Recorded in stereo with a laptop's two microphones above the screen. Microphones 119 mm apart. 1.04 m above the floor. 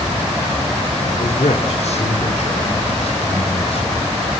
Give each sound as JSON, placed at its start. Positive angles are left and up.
{"t": 1.1, "sound": "a man speaking", "side_deg": 80, "distance_m": 3.5}